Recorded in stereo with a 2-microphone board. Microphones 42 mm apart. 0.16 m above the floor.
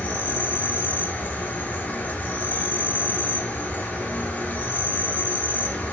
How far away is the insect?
About 0.8 m.